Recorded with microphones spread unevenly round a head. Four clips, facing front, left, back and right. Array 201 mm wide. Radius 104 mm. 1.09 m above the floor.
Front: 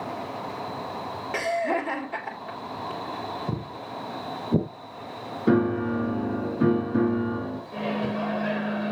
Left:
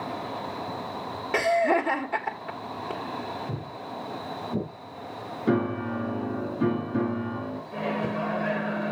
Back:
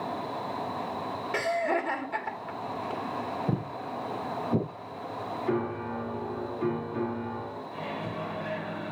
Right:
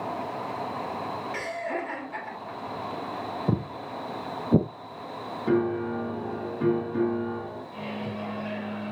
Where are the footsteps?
100° right, 2.5 m; by 4.7 s 70° right, 2 m.